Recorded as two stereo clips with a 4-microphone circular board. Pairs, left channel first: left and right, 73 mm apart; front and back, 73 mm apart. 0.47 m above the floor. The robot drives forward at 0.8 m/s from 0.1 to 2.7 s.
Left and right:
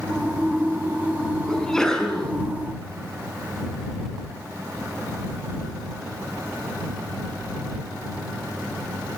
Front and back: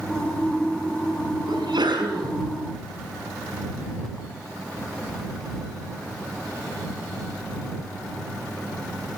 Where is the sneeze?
170° left, 5.5 m; by 2.3 s 175° left, 6 m.